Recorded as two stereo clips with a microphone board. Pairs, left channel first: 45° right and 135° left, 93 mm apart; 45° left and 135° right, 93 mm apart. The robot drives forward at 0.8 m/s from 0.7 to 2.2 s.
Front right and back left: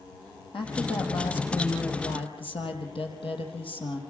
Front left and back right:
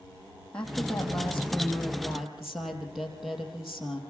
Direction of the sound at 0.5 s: 35° right.